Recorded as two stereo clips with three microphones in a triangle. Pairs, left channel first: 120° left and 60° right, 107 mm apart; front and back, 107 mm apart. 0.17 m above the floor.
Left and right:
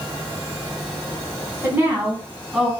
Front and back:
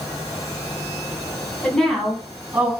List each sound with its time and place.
1.6 s a woman speaking: 60° right, 1.3 m; by 2.7 s 155° right, 1.4 m